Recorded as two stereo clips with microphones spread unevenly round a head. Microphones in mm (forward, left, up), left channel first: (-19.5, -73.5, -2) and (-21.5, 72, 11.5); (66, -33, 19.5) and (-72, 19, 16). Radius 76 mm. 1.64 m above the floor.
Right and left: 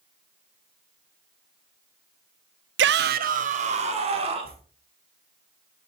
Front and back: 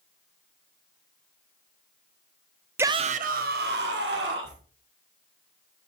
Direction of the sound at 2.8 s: 80° left.